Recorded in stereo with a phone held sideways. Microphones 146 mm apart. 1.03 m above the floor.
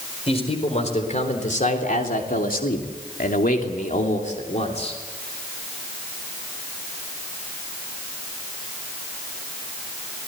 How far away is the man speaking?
About 4.5 m.